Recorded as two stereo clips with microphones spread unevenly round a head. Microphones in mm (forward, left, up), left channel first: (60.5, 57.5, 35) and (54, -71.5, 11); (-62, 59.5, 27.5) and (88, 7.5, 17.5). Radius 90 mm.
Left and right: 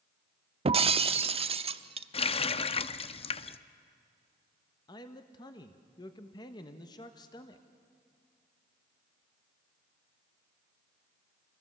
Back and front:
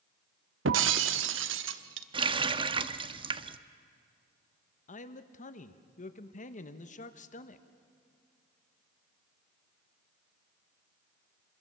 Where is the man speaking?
150° left, 1.2 m.